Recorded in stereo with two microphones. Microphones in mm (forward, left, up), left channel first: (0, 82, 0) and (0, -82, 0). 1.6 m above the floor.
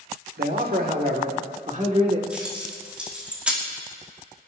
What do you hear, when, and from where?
0.4 s a man speaking: 75° right (ahead or behind), 1.6 m; by 2.2 s 40° right (ahead or behind), 1.6 m
2.3 s keys jangling: 5° right (ahead or behind), 2 m